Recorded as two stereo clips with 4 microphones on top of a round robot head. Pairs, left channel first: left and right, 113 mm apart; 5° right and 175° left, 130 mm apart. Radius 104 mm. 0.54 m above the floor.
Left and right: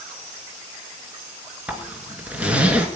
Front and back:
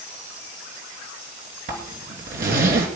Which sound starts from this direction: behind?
A zipper, at 1.7 s.